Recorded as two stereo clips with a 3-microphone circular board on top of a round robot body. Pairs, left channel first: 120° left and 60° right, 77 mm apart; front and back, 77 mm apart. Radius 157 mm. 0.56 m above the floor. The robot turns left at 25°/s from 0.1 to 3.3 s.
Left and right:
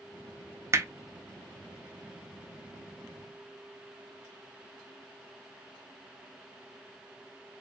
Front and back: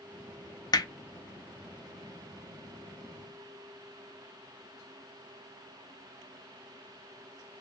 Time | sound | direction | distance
0.7 | hammering | 10° right | 0.7 m